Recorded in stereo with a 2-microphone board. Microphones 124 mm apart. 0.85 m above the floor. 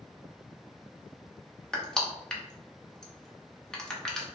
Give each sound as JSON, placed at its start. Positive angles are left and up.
{"t": 1.7, "sound": "crushing", "side_deg": 5, "distance_m": 0.7}